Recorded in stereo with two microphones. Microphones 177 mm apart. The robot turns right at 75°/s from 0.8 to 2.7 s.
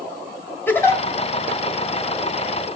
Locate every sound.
0.7 s a giggle: 10° left (ahead or behind), 2 m; by 1.0 s 25° left (ahead or behind), 2 m